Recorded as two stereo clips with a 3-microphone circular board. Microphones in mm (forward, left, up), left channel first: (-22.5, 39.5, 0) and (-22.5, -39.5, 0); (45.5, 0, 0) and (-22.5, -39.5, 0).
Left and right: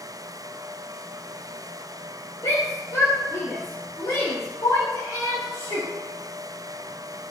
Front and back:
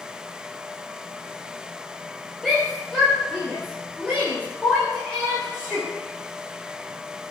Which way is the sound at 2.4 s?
120° left.